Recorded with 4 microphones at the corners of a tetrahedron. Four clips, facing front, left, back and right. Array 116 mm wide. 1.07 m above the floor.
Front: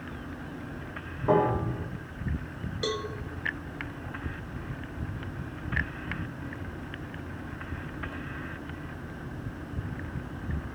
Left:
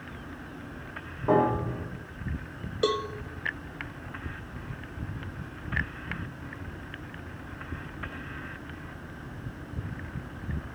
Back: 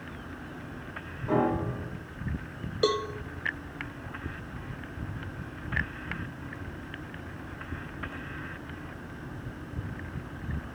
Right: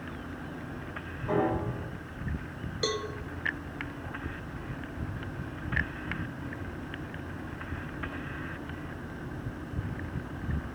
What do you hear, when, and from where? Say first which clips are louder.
1.3 s a piano: left 5 dB, front 2 dB; 45° left, 2.5 m
2.8 s a cowbell: left 5 dB, back 6 dB; 145° left, 0.7 m